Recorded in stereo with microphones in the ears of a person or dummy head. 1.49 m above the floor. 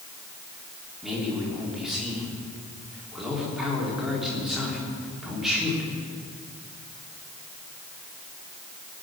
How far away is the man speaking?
About 3.5 m.